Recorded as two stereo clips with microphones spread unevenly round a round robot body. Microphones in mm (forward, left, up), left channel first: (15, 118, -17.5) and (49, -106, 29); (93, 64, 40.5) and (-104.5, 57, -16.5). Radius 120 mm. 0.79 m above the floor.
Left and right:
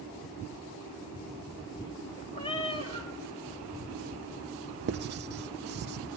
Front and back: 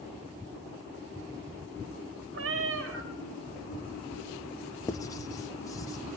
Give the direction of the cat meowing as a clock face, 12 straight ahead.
6 o'clock.